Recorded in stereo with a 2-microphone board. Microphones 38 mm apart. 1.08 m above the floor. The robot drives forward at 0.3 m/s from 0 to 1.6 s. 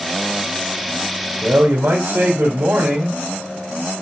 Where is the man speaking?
80° right, 3.5 m.